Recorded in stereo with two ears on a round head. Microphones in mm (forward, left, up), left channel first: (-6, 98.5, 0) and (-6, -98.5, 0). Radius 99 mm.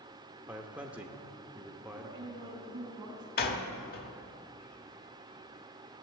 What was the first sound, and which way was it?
A man speaking, 5° right (ahead or behind).